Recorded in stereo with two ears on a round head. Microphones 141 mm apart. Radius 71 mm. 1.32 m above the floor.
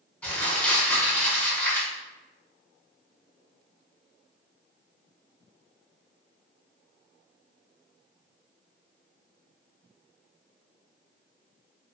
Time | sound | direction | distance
0.2 | crumpling | 10° left (ahead or behind) | 1.6 m